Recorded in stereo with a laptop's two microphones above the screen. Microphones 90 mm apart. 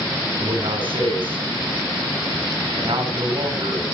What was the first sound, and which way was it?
A man speaking, 70° right (ahead or behind).